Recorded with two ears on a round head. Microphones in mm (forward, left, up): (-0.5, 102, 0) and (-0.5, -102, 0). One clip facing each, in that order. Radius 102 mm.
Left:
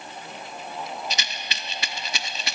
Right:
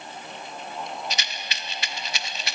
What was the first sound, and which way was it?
A rattle, 70° left (ahead or behind).